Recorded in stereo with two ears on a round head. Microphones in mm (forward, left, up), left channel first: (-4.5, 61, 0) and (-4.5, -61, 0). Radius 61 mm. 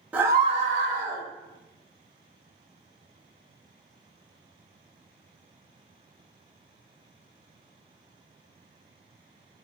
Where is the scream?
10° right (ahead or behind), 0.5 m; by 1.2 s 65° right (ahead or behind), 0.8 m.